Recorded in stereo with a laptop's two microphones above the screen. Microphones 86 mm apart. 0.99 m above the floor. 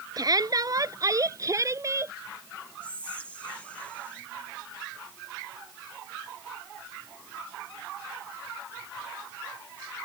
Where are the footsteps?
I don't hear footsteps.